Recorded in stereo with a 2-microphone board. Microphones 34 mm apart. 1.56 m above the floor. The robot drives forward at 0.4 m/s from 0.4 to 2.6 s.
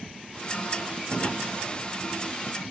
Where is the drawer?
25° left (ahead or behind), 1.3 m.